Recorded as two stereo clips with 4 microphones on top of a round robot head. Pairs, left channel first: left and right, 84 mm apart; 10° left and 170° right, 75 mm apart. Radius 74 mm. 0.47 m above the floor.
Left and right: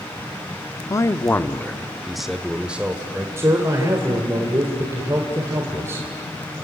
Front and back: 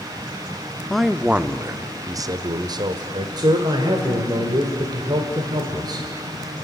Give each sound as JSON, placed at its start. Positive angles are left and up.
{"t": 0.9, "sound": "a man speaking", "azimuth_deg": 95, "distance_m": 0.8}
{"t": 3.4, "sound": "a man speaking", "azimuth_deg": -150, "distance_m": 1.8}